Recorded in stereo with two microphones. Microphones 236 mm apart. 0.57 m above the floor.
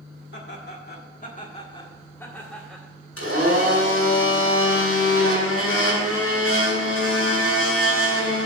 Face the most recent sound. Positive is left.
turn(degrees=75)  # may be behind; listen again after turning